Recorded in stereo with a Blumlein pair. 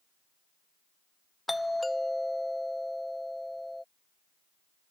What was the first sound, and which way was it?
A doorbell, 5° left.